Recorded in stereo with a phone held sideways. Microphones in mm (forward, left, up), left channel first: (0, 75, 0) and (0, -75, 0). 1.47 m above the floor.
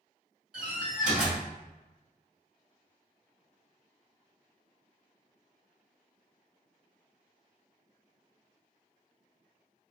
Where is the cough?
No cough in this recording.